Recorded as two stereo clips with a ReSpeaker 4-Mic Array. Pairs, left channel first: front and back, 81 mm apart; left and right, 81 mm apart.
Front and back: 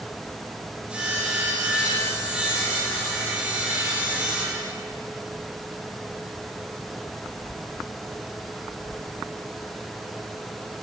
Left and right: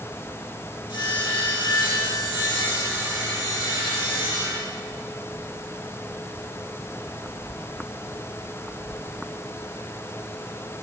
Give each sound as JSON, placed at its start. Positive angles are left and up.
{"t": 0.9, "sound": "sawing", "azimuth_deg": 105, "distance_m": 6.0}